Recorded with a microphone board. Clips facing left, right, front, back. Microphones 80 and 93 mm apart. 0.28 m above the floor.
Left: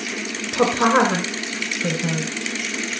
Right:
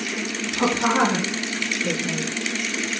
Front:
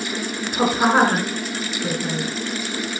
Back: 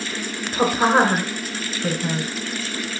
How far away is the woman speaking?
About 4 m.